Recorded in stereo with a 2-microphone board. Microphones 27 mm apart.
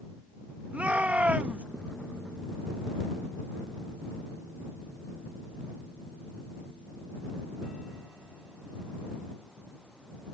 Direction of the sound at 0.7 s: 65° right (ahead or behind).